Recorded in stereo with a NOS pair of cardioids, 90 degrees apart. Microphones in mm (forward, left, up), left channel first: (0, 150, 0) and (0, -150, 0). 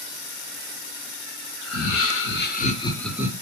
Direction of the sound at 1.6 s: 60° left.